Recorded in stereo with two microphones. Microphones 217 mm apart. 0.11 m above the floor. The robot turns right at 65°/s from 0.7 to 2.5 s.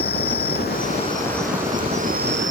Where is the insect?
130° left; by 2.5 s 110° right.